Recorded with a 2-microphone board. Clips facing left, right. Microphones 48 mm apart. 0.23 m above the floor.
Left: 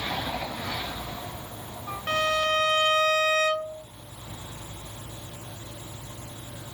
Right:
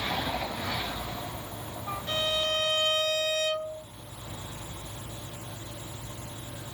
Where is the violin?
70° left (ahead or behind), 0.8 m.